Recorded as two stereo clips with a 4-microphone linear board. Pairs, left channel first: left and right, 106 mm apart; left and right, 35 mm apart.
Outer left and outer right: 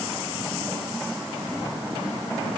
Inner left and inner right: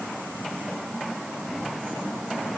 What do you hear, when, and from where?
Only background noise.